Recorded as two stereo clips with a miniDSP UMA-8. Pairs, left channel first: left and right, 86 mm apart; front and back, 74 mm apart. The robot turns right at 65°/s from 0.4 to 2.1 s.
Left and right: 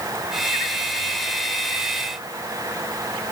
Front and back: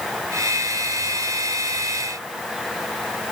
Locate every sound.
Only background noise.